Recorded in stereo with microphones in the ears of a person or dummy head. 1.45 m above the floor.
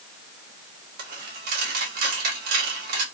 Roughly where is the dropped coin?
Right.